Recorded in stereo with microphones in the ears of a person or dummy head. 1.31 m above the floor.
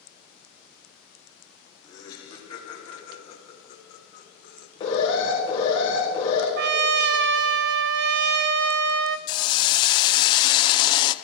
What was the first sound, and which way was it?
Laughter, 20° left (ahead or behind).